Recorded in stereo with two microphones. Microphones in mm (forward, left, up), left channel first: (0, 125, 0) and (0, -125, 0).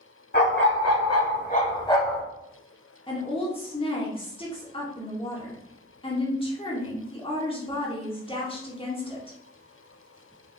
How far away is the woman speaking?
About 0.9 m.